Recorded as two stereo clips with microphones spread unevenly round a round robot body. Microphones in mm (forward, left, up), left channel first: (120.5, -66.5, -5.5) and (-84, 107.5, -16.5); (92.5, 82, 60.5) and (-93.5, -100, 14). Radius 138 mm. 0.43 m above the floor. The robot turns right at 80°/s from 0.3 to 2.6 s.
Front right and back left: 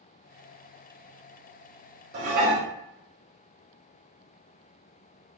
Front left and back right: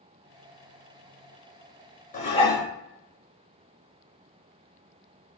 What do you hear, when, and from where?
2.1 s dishes clattering: 100° left, 0.8 m; by 2.7 s 135° left, 0.8 m